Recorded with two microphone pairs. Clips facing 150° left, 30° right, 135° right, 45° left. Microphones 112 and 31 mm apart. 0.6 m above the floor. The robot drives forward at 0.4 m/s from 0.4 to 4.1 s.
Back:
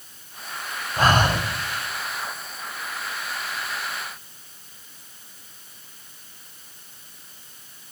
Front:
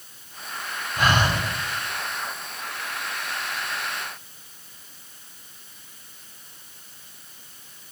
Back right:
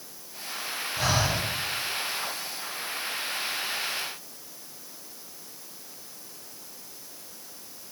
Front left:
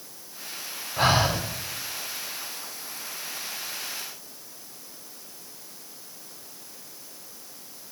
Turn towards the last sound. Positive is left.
turn(degrees=155)